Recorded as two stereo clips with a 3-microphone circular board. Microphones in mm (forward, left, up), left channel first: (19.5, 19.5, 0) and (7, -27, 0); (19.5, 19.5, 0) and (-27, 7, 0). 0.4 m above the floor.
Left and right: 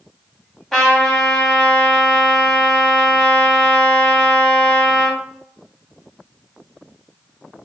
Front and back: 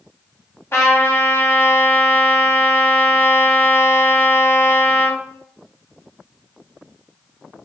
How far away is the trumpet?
About 1.2 m.